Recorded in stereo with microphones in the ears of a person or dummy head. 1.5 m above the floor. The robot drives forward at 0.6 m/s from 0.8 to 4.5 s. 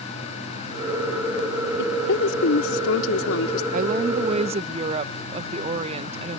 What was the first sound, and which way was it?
A woman speaking, 70° left (ahead or behind).